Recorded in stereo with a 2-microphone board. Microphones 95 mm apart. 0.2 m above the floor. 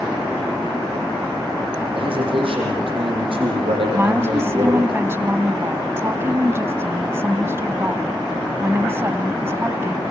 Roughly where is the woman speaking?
Right.